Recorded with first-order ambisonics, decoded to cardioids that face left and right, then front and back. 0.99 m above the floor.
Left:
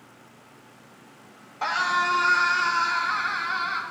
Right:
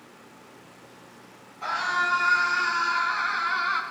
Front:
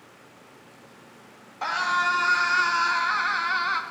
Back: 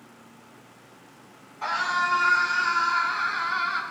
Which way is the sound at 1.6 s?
55° left.